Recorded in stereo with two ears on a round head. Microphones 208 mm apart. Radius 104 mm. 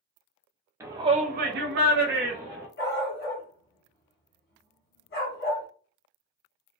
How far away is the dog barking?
About 0.9 m.